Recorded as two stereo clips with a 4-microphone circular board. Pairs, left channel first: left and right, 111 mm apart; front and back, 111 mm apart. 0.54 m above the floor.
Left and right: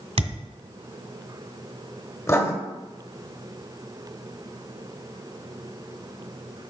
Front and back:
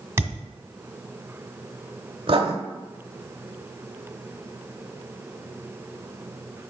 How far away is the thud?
About 1.7 m.